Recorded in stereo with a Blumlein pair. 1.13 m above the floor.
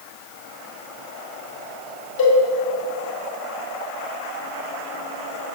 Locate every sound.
2.2 s a cowbell: 50° left, 1.7 m